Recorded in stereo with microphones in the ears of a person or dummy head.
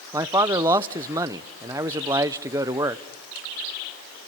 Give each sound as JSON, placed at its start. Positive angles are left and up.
{"t": 0.1, "sound": "a man speaking", "side_deg": -20, "distance_m": 0.8}